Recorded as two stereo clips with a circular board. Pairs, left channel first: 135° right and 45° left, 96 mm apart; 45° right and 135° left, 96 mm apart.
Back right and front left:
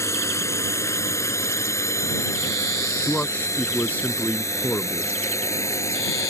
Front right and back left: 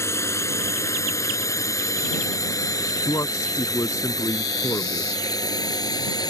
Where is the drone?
90° right; by 6.3 s 80° right.